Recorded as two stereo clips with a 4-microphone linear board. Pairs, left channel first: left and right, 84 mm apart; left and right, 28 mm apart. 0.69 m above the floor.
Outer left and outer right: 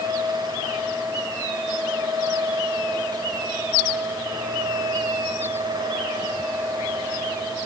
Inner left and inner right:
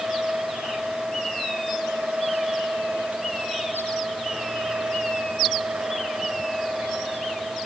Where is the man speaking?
I don't hear a man speaking.